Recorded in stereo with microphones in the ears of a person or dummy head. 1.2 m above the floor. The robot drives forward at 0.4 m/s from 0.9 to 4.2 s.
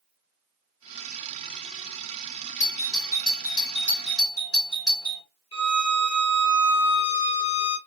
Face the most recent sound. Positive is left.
turn(degrees=15)  # may be behind; listen again after turning